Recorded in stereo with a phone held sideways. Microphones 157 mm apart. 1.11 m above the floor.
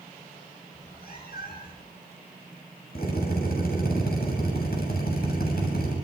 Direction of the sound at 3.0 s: 75° left (ahead or behind).